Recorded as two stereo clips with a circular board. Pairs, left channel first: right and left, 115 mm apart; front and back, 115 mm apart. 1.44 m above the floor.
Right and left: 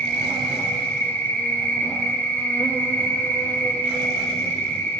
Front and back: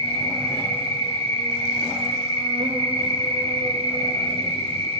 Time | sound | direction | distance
0.0 | an insect | 165° right | 0.9 m